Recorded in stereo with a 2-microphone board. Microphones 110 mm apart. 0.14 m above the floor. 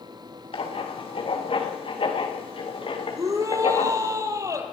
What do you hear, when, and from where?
0.5 s writing: 55° left (ahead or behind), 5 m
3.1 s a shout: 30° right (ahead or behind), 4.5 m